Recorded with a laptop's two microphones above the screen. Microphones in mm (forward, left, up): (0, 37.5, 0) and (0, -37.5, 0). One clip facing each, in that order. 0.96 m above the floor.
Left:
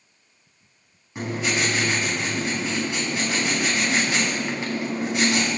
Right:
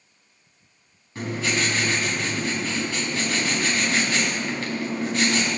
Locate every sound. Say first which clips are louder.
1.1 s writing: even; 20° left (ahead or behind), 3.5 m